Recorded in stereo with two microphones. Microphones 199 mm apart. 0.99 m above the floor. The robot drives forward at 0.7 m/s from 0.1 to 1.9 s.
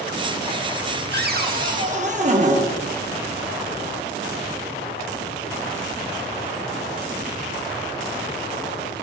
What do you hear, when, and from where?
1.1 s a cupboard door: 55° right (ahead or behind), 0.9 m; by 2.7 s 35° right (ahead or behind), 1.2 m